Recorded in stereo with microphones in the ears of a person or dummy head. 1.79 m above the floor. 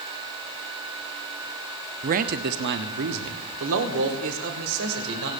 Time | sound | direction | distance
2.0 | a man speaking | 40° right (ahead or behind) | 0.5 m